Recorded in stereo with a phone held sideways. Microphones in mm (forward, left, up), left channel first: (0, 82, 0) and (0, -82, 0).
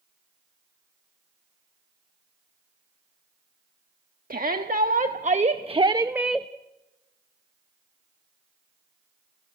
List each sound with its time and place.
4.3 s a shout: 60° right (ahead or behind), 1.4 m; by 6.5 s 5° left (ahead or behind), 0.5 m